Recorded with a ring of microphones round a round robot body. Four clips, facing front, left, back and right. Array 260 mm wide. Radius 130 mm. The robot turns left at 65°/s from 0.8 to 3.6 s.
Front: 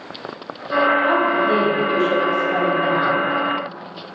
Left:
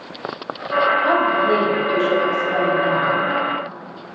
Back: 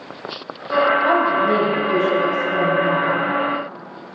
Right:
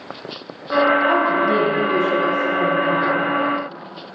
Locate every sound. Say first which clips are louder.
1.1 s a woman speaking: even, back 1 dB; 125° left, 2.5 m; by 3.3 s 20° right, 2.5 m